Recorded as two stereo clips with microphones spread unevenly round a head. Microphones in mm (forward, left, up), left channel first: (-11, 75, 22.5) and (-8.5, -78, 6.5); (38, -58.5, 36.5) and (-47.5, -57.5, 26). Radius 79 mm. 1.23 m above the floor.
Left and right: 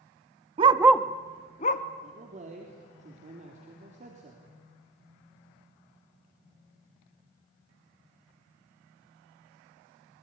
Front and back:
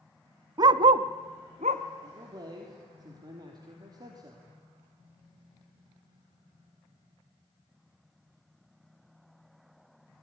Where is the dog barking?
140° right, 0.8 m; by 1.8 s 120° left, 1.2 m.